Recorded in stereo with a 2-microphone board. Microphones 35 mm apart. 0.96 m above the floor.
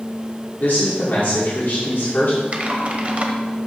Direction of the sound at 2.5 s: 35° right (ahead or behind).